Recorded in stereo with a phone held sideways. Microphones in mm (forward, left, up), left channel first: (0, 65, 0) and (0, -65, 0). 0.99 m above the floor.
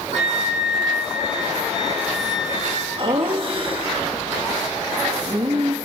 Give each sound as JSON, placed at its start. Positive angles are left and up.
{"t": 0.1, "sound": "a flute", "side_deg": -60, "distance_m": 1.5}
{"t": 3.0, "sound": "laughter", "side_deg": -45, "distance_m": 1.8}